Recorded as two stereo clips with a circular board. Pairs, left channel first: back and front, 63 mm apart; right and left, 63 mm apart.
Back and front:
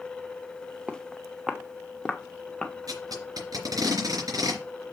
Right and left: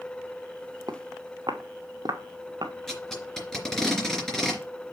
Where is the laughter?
I don't hear laughter.